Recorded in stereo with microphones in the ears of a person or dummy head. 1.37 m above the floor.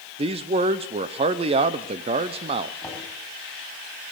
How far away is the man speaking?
About 0.5 m.